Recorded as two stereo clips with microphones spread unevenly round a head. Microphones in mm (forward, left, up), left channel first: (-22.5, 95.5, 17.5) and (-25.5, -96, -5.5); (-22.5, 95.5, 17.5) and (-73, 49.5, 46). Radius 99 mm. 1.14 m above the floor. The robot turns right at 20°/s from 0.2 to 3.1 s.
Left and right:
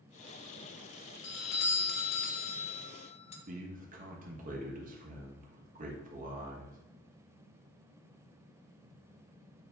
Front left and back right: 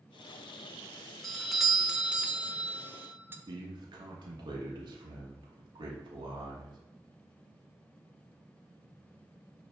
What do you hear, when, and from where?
1.2 s a doorbell: 110° left, 0.7 m; by 3.4 s 150° left, 0.7 m
3.5 s a man speaking: 140° right, 1.0 m